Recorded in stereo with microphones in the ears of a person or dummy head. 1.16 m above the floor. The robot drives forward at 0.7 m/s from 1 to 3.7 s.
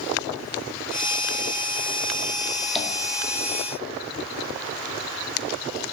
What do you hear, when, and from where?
2.8 s tapping: centre (ahead or behind), 2.0 m